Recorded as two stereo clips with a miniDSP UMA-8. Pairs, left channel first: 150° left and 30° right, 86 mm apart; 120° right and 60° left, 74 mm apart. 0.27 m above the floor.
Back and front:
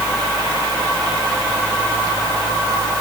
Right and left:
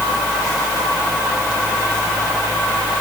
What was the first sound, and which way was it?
Only background noise.